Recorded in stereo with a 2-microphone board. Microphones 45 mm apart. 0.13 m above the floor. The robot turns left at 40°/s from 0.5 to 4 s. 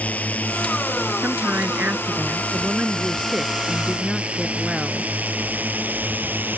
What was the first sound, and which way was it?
A drone, 30° left (ahead or behind).